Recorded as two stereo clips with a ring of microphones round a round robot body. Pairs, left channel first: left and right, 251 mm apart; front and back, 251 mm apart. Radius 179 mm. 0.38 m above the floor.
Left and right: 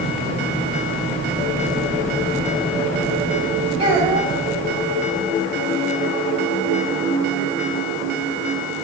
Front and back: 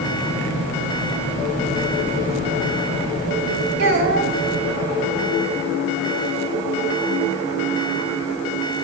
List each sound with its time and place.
3.8 s a child speaking: 160° right, 1.8 m